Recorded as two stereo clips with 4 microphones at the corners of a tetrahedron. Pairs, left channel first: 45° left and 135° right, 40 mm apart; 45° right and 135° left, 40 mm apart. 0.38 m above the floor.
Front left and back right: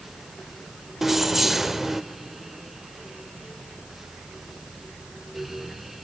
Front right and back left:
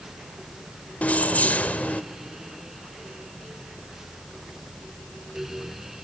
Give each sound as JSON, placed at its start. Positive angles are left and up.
{"t": 1.0, "sound": "keys jangling", "azimuth_deg": -60, "distance_m": 0.7}